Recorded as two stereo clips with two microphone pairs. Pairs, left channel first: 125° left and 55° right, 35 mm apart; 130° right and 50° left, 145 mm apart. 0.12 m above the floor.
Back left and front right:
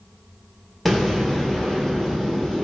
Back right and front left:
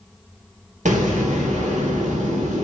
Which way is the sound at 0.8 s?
30° left.